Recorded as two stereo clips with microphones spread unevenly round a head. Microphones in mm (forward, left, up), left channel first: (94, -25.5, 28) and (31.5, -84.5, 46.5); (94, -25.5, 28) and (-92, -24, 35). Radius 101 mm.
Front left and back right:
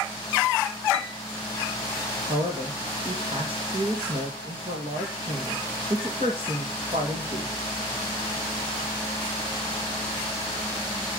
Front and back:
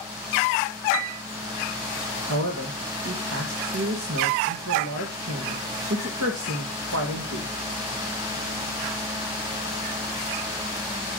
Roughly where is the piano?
Behind left.